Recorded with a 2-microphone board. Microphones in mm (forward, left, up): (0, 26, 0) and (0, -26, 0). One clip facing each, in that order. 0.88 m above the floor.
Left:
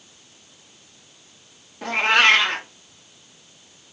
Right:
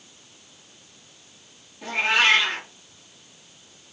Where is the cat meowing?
55° left (ahead or behind), 0.6 m.